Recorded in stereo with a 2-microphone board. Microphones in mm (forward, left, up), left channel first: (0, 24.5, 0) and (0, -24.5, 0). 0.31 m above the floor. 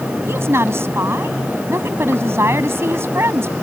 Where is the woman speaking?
60° right (ahead or behind).